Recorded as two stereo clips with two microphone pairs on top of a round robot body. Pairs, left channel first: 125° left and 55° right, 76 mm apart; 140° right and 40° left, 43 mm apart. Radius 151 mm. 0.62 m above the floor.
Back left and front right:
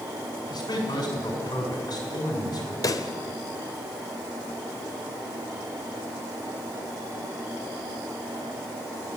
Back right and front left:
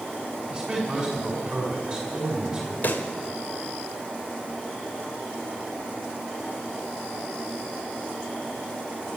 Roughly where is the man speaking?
Behind left.